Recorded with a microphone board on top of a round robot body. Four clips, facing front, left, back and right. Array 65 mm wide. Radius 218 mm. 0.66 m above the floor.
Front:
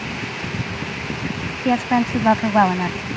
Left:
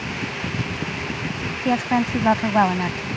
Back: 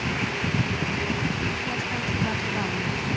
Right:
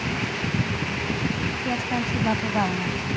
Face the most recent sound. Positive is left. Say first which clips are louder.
# left 9 dB, front 10 dB
turn(degrees=35)